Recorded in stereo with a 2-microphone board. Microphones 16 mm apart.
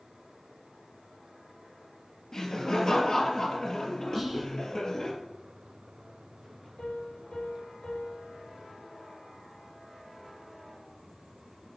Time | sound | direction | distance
2.3 | laughter | 40° left (ahead or behind) | 3 m
4.1 | whispering | 5° left (ahead or behind) | 1.6 m
6.8 | a piano | 75° left (ahead or behind) | 5.5 m